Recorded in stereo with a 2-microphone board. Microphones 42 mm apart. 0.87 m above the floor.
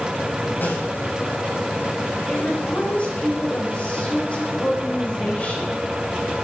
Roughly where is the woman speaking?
Left.